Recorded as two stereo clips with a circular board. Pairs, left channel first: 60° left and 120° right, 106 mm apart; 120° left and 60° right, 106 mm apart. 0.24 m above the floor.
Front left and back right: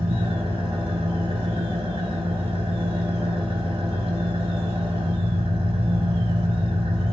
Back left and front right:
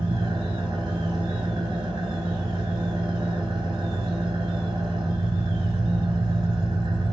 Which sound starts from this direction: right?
An engine running, at 0.0 s.